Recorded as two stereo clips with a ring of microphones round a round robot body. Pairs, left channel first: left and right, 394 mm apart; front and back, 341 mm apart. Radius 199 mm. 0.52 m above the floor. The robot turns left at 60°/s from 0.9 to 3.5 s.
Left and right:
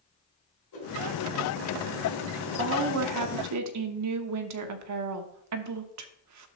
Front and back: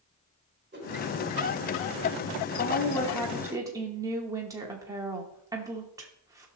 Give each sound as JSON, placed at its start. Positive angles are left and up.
{"t": 0.7, "sound": "a whoosh", "azimuth_deg": 125, "distance_m": 2.5}
{"t": 2.6, "sound": "a woman speaking", "azimuth_deg": -50, "distance_m": 0.9}